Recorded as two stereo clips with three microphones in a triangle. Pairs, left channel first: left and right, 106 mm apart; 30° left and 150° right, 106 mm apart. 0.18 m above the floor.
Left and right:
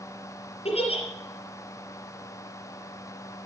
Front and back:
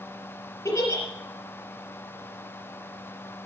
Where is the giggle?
90° left, 4 m.